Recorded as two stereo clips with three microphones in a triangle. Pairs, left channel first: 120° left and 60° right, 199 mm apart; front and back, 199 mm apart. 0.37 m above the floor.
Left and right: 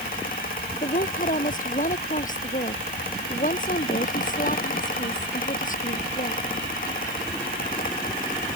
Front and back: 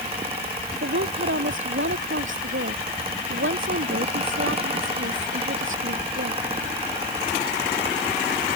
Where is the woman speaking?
170° left.